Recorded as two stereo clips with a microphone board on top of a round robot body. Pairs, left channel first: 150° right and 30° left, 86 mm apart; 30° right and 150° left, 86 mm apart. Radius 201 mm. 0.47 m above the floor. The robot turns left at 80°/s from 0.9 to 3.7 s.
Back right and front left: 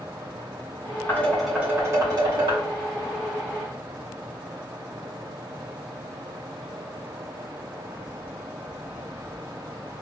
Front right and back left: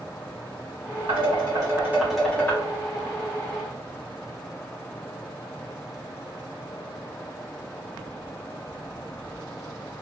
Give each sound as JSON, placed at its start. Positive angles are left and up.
{"t": 1.1, "sound": "dishes clattering", "azimuth_deg": 150, "distance_m": 2.0}